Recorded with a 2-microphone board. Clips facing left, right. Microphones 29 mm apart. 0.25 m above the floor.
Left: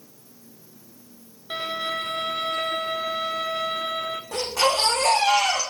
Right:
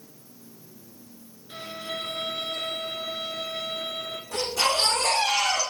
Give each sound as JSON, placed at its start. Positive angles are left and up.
{"t": 1.5, "sound": "a violin", "side_deg": 75, "distance_m": 0.9}
{"t": 4.3, "sound": "a baby crying", "side_deg": 60, "distance_m": 8.0}